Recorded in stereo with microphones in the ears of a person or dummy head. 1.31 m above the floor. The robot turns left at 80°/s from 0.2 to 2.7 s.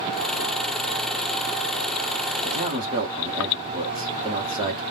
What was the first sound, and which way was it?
A man speaking, 40° right (ahead or behind).